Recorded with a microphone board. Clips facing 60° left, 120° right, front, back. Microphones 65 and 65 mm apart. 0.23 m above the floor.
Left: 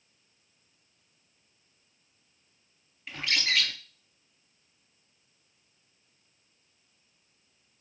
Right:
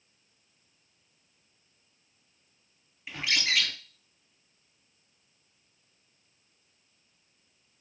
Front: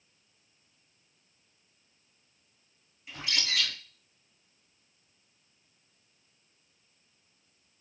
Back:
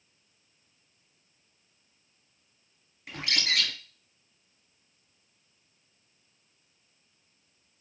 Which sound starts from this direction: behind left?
A bird, at 3.1 s.